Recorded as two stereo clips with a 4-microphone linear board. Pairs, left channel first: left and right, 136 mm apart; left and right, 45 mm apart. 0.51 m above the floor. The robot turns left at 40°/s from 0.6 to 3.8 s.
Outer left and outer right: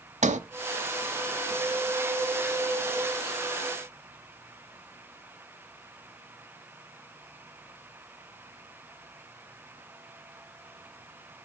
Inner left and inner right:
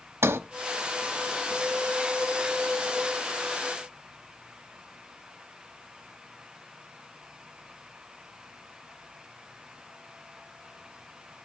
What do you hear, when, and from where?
0.2 s a sliding door: 60° right (ahead or behind), 0.9 m